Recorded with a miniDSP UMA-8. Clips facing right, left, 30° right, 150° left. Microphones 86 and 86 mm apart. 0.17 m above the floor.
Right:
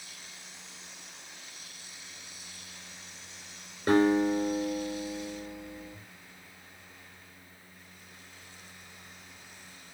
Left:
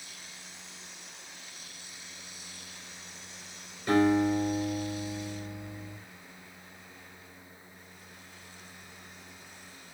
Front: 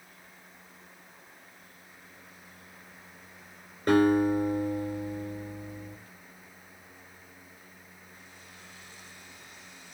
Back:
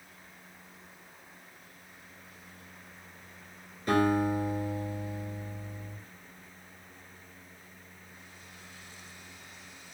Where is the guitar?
55° right, 3 m.